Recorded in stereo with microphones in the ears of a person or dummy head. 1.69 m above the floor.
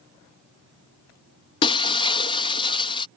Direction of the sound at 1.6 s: 30° left (ahead or behind).